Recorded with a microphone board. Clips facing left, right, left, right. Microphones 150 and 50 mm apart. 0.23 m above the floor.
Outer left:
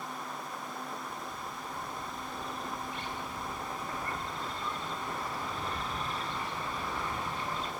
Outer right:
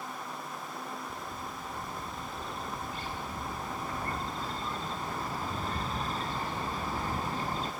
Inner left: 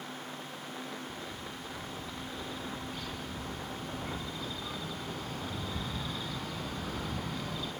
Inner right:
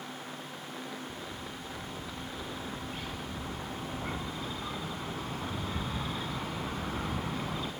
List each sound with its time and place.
1.1 s a bird: 35° right (ahead or behind), 0.8 m